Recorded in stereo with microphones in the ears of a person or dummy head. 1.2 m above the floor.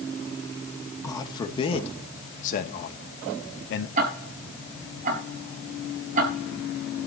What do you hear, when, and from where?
1.0 s a man speaking: 20° left (ahead or behind), 2.5 m; by 3.9 s 70° left (ahead or behind), 2.5 m
4.0 s ticking: 40° right (ahead or behind), 4.5 m